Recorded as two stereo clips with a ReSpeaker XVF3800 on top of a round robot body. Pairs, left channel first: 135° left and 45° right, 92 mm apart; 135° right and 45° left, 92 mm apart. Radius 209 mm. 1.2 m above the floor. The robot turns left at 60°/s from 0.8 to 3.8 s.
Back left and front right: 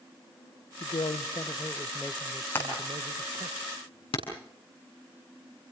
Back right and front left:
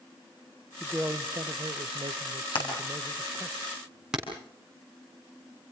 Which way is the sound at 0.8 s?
125° left.